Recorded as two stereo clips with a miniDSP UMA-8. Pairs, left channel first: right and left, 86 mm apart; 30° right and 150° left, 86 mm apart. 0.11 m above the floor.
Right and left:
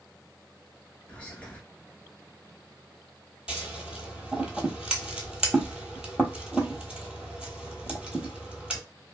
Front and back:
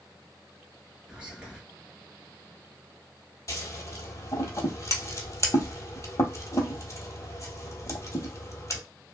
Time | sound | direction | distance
1.1 | whispering | 145° right | 1.2 m
3.5 | scissors | 10° left | 0.9 m